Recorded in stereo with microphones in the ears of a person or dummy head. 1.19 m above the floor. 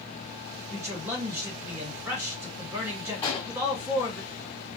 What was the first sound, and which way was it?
A man speaking, 15° right (ahead or behind).